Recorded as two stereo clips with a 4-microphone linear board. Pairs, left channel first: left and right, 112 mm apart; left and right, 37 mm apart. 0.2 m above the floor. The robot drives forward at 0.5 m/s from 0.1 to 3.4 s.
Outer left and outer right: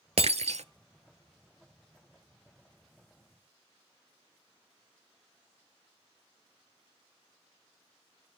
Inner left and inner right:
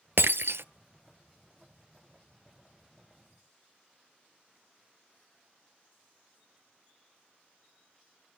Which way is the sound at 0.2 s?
65° right (ahead or behind).